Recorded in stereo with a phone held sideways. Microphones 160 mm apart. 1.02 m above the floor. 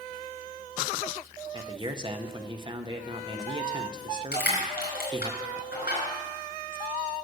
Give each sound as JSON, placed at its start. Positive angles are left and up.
{"t": 1.5, "sound": "a man speaking", "side_deg": -30, "distance_m": 0.7}
{"t": 4.3, "sound": "crushing", "side_deg": 85, "distance_m": 5.0}